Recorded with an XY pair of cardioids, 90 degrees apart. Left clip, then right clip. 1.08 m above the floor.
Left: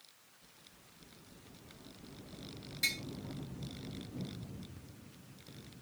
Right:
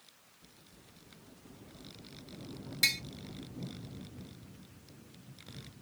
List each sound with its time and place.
2.8 s tapping: 70° right, 1.0 m